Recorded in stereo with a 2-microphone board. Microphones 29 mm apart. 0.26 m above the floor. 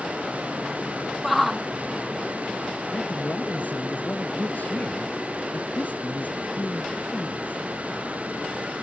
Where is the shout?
Centre (ahead or behind).